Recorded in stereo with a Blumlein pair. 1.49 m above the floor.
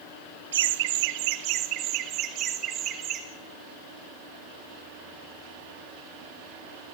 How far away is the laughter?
About 1.1 m.